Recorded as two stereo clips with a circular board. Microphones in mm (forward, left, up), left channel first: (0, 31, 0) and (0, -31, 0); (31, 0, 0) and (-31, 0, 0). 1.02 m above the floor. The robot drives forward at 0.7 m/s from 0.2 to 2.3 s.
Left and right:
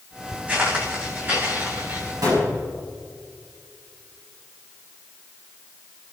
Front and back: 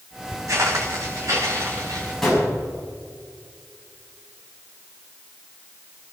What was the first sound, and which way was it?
Footsteps, 155° right.